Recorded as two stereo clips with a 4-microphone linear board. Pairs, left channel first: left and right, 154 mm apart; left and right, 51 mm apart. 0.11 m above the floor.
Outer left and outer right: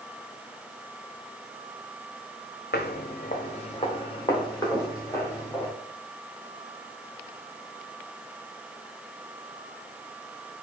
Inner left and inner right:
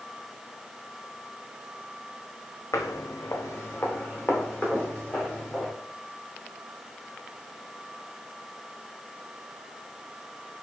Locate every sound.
2.7 s footsteps: 85° left, 0.6 m; by 5.7 s 15° left (ahead or behind), 2 m